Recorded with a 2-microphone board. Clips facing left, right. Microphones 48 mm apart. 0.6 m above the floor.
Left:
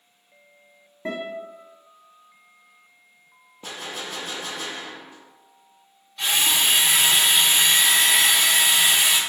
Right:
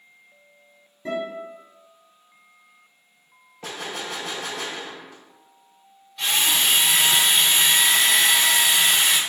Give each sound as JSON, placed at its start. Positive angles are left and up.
{"t": 1.1, "sound": "a guitar", "side_deg": 55, "distance_m": 0.8}
{"t": 3.6, "sound": "a gunshot", "side_deg": -75, "distance_m": 0.6}
{"t": 6.2, "sound": "a drill", "side_deg": 5, "distance_m": 0.8}